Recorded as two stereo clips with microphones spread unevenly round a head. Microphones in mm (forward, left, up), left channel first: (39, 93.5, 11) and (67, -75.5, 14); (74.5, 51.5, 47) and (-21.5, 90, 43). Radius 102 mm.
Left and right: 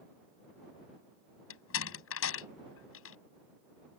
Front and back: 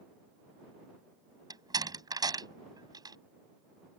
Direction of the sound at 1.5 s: 105° left.